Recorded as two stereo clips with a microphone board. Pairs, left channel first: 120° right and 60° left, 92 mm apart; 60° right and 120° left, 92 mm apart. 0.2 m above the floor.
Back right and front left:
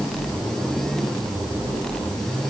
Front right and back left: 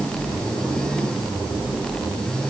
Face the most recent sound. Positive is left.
No sound to turn to.